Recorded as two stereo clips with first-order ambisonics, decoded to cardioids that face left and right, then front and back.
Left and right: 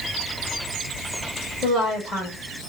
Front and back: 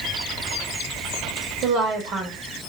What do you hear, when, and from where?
1.6 s a woman speaking: 150° left, 1.3 m